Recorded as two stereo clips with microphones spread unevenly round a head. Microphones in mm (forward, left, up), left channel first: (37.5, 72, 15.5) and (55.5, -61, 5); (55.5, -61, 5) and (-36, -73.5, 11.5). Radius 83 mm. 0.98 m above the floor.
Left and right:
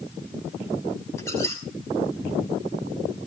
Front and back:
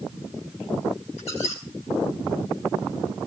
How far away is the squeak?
About 6 m.